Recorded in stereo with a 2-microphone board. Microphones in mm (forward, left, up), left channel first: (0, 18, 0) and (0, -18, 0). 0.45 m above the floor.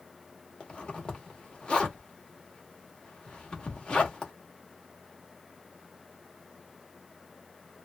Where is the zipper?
25° left (ahead or behind), 1.1 m.